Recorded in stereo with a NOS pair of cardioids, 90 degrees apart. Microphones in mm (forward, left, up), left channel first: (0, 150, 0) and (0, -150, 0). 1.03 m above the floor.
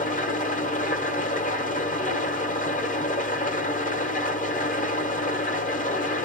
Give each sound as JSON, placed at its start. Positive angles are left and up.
{"t": 0.0, "sound": "an engine running", "azimuth_deg": 25, "distance_m": 1.5}